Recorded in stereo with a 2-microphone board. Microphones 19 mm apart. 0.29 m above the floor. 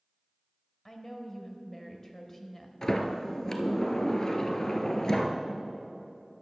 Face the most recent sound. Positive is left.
turn(degrees=35)  # may be behind; listen again after turning